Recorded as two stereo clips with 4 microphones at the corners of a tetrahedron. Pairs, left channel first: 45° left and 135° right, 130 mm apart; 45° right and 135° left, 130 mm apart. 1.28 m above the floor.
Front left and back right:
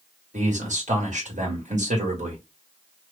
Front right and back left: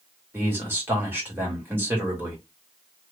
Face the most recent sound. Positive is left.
turn(degrees=-150)